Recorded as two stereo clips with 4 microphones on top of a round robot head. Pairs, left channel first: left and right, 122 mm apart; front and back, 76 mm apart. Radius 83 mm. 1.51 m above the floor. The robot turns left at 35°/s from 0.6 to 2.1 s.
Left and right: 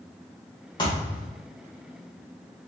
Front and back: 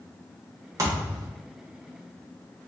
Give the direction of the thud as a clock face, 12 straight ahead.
7 o'clock.